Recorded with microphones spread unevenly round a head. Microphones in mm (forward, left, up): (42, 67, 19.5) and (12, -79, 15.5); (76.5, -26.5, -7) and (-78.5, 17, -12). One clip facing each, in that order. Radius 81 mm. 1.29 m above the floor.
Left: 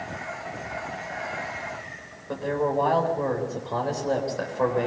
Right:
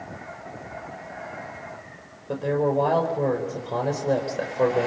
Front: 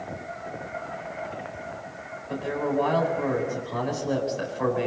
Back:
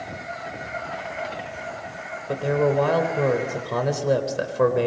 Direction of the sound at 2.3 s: 170° right.